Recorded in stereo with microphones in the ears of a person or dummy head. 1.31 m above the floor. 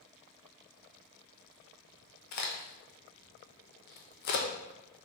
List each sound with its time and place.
2.3 s a crack: 50° left (ahead or behind), 0.7 m